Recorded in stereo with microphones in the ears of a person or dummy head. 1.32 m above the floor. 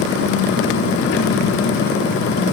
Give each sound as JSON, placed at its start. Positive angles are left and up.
{"t": 0.0, "sound": "an engine running", "side_deg": 60, "distance_m": 1.4}